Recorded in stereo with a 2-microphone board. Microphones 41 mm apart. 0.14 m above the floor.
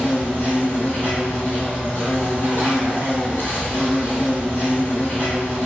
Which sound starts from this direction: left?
An insect, at 0.0 s.